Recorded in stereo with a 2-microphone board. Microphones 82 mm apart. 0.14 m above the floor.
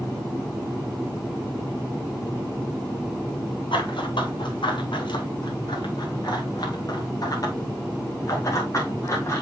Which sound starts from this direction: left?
Running footsteps, at 3.7 s.